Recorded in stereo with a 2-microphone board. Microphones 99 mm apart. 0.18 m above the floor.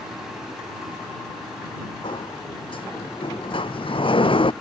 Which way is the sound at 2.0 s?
70° left (ahead or behind).